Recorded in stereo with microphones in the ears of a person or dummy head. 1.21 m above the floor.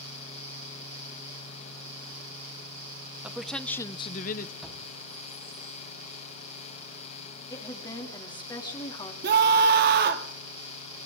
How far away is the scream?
About 1.8 m.